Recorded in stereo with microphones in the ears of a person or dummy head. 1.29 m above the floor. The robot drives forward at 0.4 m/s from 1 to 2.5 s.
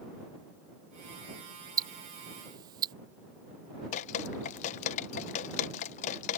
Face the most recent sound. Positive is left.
turn(degrees=40)  # may be behind; listen again after turning